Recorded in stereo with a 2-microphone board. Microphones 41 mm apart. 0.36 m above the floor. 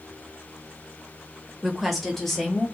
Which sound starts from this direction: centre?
A woman speaking, at 1.6 s.